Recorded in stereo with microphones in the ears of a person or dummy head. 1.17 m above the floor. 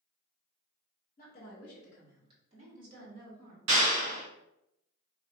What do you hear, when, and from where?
1.2 s a woman speaking: 40° left (ahead or behind), 0.8 m; by 3.6 s 60° right (ahead or behind), 1.6 m
3.7 s a clap: 65° right (ahead or behind), 0.8 m